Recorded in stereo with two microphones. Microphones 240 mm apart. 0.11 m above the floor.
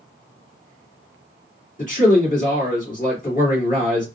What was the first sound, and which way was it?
A man speaking, 35° left (ahead or behind).